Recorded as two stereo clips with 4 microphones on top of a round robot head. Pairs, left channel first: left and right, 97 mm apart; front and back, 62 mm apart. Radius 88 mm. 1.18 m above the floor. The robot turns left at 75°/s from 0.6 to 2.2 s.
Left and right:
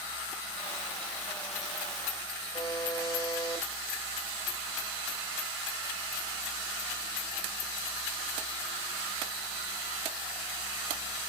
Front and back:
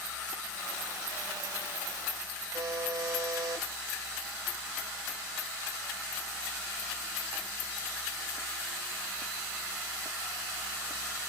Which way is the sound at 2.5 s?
155° left.